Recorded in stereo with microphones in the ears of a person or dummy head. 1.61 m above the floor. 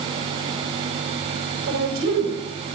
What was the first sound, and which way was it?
A woman speaking, 85° right.